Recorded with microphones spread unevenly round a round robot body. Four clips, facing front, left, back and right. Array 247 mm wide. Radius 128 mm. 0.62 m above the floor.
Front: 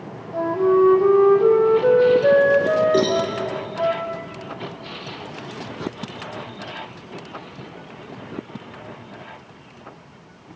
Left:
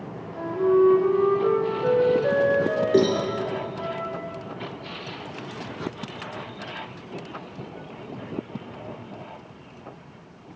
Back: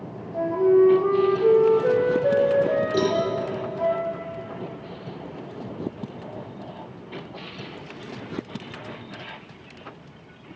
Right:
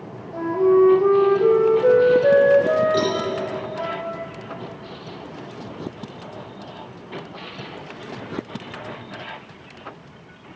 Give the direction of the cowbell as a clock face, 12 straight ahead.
10 o'clock.